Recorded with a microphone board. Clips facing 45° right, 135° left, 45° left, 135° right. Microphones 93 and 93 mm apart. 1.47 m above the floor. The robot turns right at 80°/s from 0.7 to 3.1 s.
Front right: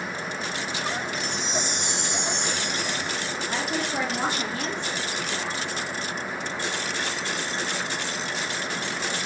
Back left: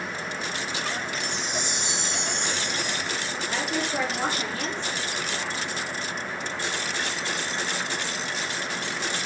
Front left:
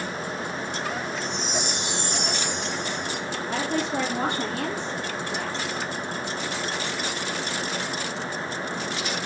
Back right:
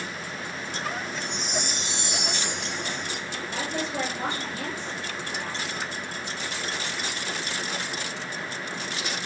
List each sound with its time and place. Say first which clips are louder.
1.1 s a chime: front right 1 dB, front left 3 dB; 135° right, 2.5 m; by 3.2 s 20° left, 2.5 m
3.5 s a woman speaking: even, front left 4 dB; 30° left, 2.0 m